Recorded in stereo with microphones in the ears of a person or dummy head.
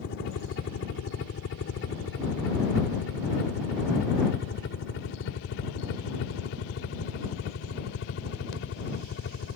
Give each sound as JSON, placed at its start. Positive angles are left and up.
{"t": 0.0, "sound": "a helicopter", "side_deg": 60}